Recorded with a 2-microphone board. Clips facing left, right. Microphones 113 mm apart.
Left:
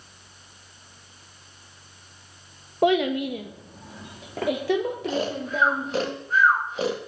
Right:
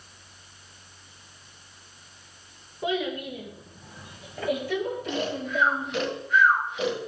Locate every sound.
2.8 s a child speaking: 70° left (ahead or behind), 1.4 m; by 6.1 s 80° left, 4.5 m
5.1 s snoring: 35° left (ahead or behind), 1.8 m